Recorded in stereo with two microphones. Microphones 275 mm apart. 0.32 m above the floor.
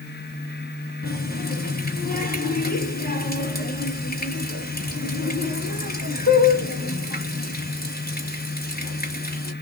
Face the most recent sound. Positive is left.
turn(degrees=35)  # may be behind; listen again after turning